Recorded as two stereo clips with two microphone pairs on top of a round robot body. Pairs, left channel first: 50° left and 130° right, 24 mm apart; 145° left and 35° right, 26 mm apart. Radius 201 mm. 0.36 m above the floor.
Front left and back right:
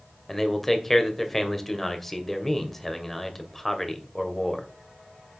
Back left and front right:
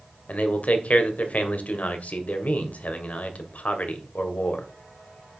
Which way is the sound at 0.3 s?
125° left.